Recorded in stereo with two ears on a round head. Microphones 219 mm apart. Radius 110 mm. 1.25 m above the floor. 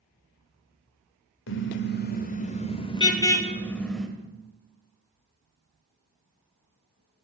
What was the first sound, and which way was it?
A car horn, 55° left (ahead or behind).